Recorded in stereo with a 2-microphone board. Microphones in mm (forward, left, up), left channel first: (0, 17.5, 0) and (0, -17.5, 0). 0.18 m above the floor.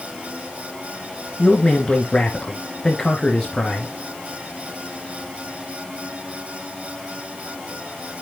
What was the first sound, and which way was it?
A man speaking, 25° left (ahead or behind).